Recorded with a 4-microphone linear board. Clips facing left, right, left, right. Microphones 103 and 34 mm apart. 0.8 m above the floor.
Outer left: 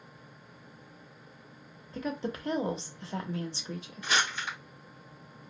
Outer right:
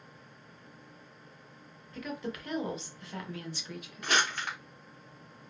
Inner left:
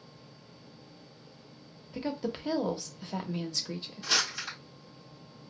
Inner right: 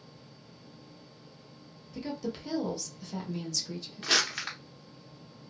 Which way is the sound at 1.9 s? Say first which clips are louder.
Outer left 4 dB, inner left 2 dB; 30° left (ahead or behind).